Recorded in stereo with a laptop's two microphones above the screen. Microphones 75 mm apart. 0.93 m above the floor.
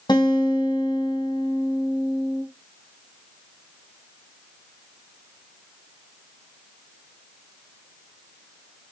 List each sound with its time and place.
0.1 s a guitar: 80° left, 2.5 m